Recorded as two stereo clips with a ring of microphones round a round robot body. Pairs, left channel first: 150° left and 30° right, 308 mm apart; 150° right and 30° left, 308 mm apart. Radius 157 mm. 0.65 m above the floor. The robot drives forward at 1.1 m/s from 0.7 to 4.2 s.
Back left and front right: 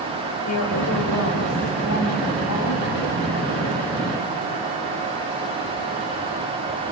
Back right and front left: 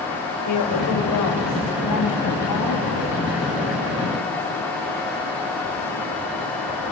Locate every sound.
0.5 s a woman speaking: 175° right, 3.5 m